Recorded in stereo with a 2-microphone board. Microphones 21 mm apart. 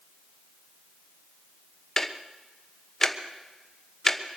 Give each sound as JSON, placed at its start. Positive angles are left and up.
{"t": 2.0, "sound": "ticking", "side_deg": 20, "distance_m": 1.1}